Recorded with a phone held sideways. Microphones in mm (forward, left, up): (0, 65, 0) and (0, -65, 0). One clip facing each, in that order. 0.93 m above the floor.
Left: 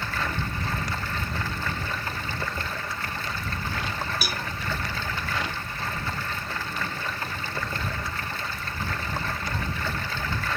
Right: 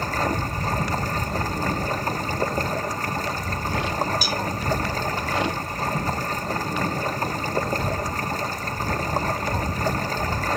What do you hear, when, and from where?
0.0 s running water: 40° right (ahead or behind)
4.2 s a cowbell: 65° left (ahead or behind)